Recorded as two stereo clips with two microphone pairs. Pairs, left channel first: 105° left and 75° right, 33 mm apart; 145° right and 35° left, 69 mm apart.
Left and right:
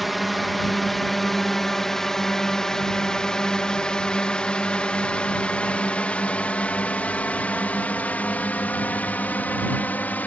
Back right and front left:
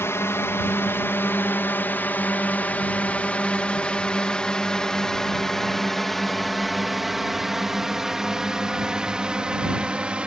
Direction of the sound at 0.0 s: 165° right.